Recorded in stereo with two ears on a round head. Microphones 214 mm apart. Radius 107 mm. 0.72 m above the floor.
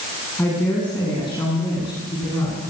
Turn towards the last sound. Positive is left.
turn(degrees=15)  # may be behind; listen again after turning